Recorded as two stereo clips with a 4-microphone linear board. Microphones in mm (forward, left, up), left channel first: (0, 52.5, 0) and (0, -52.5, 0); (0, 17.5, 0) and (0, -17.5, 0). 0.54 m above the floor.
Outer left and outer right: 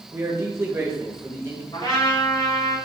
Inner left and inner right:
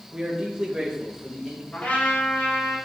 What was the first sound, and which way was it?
A man speaking, 30° right (ahead or behind).